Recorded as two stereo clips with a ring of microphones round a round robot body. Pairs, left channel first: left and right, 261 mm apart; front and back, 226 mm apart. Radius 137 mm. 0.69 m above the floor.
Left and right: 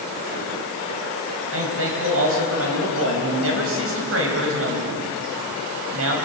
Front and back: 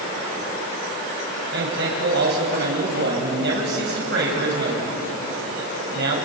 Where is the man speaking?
130° right, 4.5 m.